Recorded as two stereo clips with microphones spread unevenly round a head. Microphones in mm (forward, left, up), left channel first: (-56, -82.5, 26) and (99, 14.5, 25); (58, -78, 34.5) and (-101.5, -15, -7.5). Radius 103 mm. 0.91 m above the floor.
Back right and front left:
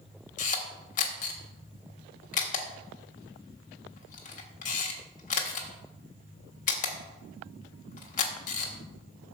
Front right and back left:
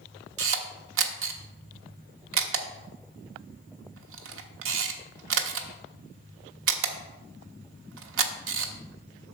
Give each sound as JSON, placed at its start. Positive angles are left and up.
{"t": 0.4, "sound": "a camera shutter", "azimuth_deg": 155, "distance_m": 1.0}